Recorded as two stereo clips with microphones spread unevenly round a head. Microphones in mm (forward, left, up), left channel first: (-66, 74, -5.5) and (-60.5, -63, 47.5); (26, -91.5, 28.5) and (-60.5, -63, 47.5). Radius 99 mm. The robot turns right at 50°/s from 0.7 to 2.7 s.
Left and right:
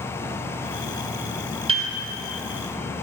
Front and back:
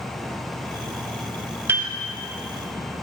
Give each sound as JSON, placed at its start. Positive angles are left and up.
{"t": 1.7, "sound": "a piano", "azimuth_deg": -135, "distance_m": 1.0}